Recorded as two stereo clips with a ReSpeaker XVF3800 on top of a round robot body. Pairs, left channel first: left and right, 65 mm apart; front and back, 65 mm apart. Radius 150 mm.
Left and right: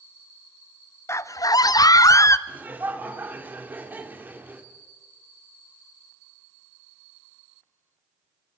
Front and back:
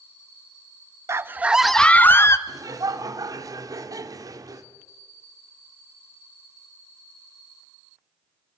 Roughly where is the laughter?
Behind right.